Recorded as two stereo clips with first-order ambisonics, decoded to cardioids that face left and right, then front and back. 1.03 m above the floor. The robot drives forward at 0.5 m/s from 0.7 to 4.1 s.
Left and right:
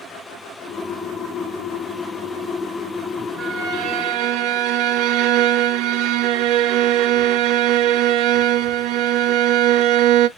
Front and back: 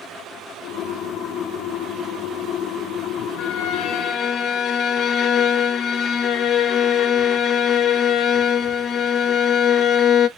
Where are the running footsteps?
No running footsteps in this recording.